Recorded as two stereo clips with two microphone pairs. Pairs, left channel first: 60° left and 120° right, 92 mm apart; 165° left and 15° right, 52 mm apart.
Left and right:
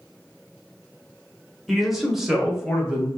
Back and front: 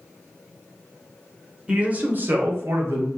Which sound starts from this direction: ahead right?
A man speaking, at 1.7 s.